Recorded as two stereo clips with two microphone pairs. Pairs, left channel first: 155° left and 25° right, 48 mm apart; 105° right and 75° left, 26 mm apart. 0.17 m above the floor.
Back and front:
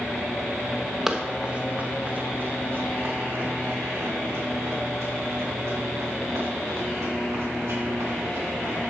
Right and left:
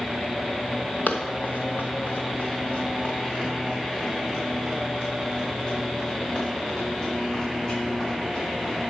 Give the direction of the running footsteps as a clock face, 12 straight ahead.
4 o'clock.